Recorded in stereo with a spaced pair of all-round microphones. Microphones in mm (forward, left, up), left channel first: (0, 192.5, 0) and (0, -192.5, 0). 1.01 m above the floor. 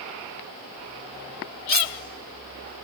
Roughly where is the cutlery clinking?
Right.